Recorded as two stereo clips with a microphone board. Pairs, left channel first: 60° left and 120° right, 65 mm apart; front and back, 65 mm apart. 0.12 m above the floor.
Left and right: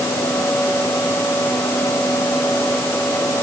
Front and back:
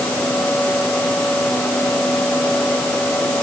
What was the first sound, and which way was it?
Only background noise.